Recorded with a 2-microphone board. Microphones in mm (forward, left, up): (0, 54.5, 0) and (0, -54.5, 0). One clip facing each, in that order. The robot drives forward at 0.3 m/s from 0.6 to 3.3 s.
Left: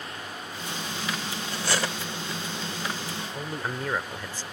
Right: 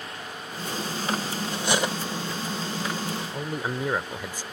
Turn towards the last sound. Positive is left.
turn(degrees=-15)  # may be behind; listen again after turning